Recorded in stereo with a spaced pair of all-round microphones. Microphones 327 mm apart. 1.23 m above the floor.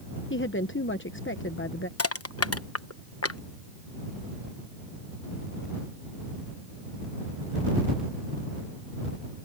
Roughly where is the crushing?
Left.